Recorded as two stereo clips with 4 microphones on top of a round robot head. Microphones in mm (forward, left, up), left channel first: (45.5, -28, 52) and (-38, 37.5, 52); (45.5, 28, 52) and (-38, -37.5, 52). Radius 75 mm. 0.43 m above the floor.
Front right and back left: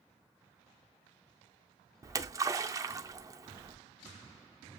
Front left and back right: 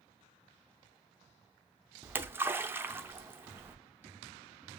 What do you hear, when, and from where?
2.0 s a splash: 165° left, 0.6 m